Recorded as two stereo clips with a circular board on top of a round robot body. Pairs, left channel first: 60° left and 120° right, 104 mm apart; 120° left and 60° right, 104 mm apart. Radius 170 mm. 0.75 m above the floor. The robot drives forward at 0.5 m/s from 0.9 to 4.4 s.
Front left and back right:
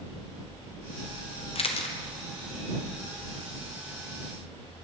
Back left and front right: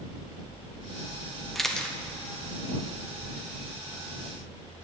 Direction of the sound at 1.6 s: 30° left.